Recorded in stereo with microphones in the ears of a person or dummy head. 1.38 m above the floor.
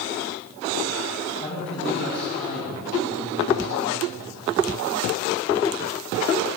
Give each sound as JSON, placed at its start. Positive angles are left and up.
{"t": 1.4, "sound": "a man speaking", "side_deg": 35, "distance_m": 10.0}